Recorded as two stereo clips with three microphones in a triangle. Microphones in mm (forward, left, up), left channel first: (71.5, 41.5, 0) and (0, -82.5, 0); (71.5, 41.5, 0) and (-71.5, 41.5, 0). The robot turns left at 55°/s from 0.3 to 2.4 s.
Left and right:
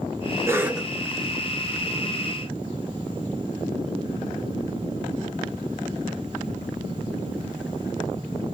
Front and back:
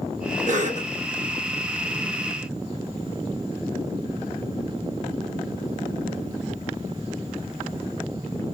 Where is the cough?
175° left, 0.9 m; by 0.9 s 150° left, 0.9 m.